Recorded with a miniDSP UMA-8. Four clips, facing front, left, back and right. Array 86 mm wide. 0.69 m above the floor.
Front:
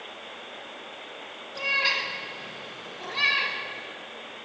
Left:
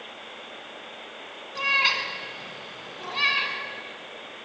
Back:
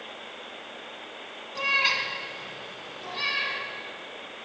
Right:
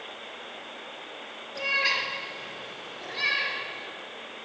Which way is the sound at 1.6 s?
115° left.